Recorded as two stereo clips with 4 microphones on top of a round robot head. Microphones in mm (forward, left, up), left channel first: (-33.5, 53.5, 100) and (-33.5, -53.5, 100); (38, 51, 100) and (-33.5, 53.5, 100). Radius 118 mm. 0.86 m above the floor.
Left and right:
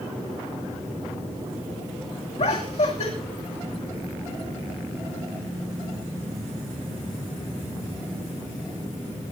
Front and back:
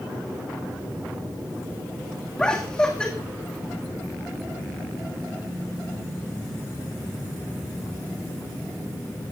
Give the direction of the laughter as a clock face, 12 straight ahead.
10 o'clock.